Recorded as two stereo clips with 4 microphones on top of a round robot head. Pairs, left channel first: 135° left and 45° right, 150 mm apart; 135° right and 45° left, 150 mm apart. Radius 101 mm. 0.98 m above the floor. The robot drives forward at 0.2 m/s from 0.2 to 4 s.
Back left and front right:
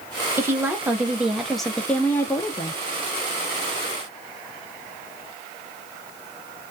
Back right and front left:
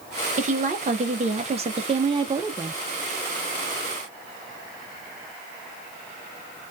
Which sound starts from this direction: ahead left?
A woman speaking, at 0.4 s.